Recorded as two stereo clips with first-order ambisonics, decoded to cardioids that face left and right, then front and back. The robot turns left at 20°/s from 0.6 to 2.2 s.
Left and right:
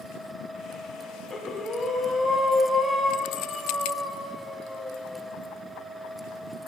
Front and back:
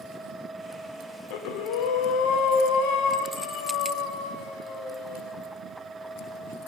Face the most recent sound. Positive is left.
turn(degrees=-5)